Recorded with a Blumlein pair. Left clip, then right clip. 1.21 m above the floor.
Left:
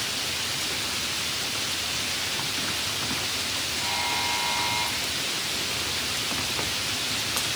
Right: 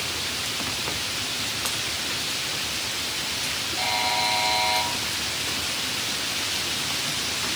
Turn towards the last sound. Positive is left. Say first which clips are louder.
# right 5 dB
turn(degrees=-50)